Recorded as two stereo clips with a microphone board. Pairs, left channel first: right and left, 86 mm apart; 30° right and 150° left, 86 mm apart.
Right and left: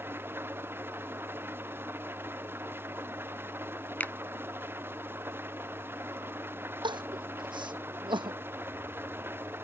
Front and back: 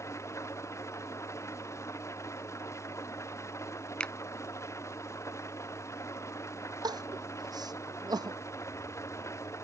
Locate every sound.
0.0 s an engine running: 25° left
4.0 s a finger snap: 85° right
6.8 s crying: 110° left